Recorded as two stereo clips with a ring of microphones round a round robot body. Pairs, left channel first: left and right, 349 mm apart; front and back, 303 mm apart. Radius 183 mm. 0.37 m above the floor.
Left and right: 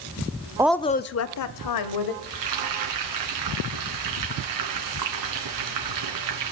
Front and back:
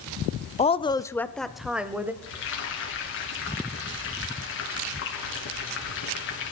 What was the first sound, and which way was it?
A woman speaking, 25° right.